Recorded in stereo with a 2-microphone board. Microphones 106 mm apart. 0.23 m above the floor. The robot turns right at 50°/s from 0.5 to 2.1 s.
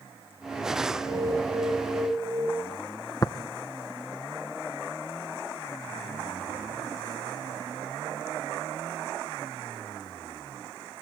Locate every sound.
1.0 s an alarm: 115° right, 1.4 m; by 2.5 s 65° right, 1.4 m
3.2 s tapping: 35° left (ahead or behind), 0.8 m